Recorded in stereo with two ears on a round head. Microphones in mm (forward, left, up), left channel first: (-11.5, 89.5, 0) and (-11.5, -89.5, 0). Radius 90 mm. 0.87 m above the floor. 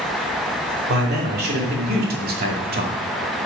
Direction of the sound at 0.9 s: 50° right (ahead or behind).